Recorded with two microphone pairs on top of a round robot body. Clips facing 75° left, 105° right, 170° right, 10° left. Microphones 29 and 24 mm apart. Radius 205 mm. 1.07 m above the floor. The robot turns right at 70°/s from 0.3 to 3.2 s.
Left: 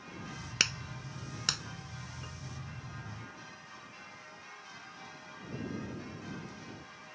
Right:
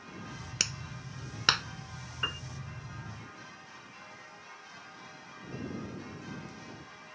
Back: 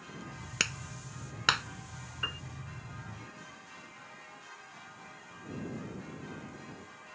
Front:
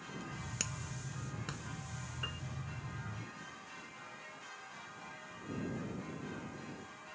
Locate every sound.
0.6 s a clap: 140° left; by 1.6 s 145° right
2.2 s a piano: 110° right; by 2.4 s 95° right